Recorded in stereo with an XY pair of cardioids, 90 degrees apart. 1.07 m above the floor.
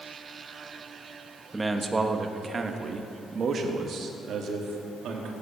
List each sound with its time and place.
1.5 s a man speaking: 20° right, 1.4 m; by 5.3 s 80° right, 2.5 m